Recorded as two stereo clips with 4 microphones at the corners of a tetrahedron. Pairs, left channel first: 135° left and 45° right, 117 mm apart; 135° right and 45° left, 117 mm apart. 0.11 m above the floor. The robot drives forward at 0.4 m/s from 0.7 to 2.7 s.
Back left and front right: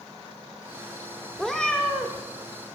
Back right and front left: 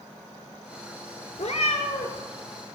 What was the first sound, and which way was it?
A cat meowing, 140° right.